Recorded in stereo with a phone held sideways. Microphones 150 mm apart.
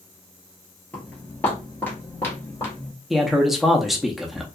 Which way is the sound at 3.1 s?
Centre (ahead or behind).